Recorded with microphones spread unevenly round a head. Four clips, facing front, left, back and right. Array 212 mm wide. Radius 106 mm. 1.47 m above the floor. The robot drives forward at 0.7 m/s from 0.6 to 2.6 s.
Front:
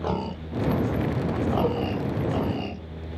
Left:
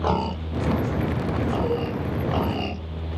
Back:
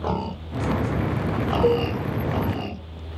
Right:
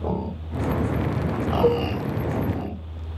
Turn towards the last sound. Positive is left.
turn(degrees=-150)